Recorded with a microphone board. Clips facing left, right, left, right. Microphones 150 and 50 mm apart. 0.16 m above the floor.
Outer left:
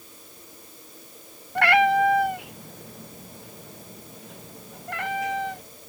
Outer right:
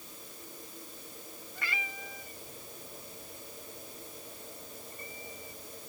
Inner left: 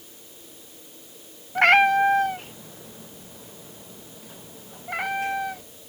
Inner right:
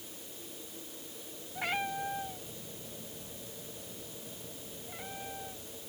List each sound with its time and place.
1.6 s a cat meowing: 70° left (ahead or behind); by 5.6 s 80° left